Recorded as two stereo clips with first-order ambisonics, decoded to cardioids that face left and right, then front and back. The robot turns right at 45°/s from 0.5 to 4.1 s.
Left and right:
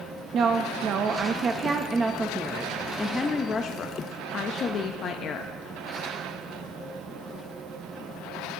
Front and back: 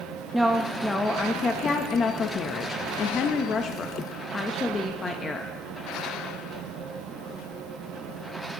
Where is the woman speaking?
100° right, 0.6 m; by 5.5 s 65° left, 0.6 m.